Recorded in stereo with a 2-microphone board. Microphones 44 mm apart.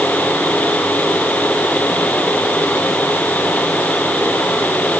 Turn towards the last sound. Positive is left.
No sound to turn to.